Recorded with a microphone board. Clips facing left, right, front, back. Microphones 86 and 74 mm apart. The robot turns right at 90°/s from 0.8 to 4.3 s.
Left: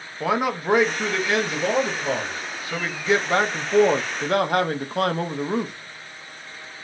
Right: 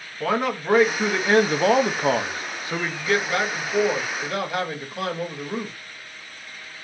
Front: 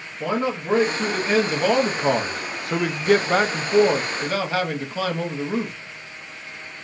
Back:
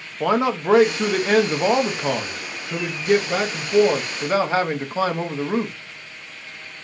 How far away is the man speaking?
About 0.6 m.